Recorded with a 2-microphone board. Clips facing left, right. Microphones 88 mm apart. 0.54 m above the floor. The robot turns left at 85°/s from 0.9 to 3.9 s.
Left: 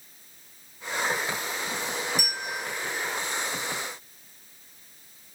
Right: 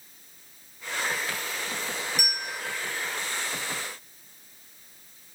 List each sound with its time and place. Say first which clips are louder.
2.2 s a bell: left 1 dB; 105° right, 2 m; by 2.6 s 145° right, 2 m